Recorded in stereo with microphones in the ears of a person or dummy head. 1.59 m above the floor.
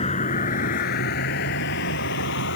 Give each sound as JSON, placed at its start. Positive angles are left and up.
{"t": 0.0, "sound": "a vehicle", "side_deg": 30}